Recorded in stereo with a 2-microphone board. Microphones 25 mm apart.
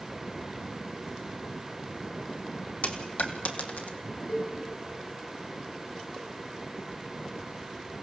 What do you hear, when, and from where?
2.8 s a dropped coin: 75° left (ahead or behind), 1.7 m
4.3 s a cowbell: 85° left, 5.5 m